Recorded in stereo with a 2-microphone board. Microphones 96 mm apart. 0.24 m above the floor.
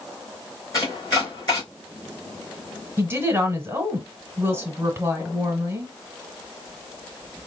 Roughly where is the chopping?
Left.